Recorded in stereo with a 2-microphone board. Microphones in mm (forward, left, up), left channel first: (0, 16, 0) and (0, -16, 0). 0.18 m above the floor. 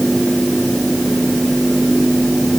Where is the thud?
No thud in this recording.